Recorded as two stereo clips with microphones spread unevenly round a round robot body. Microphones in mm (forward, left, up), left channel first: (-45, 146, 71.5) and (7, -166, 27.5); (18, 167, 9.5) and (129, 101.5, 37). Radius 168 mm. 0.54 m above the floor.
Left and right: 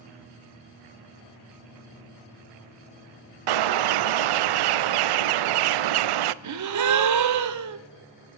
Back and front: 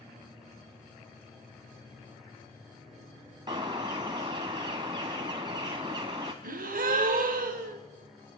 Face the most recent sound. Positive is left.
turn(degrees=-55)